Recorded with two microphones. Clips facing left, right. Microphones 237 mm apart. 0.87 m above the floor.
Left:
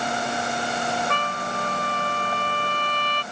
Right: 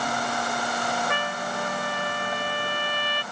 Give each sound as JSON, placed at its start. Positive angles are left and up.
{"t": 1.1, "sound": "a trumpet", "side_deg": -10}